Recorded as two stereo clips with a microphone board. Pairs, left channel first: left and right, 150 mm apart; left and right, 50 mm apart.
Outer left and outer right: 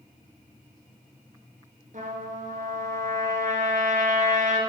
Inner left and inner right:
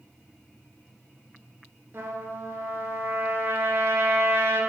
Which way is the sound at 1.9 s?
60° right (ahead or behind).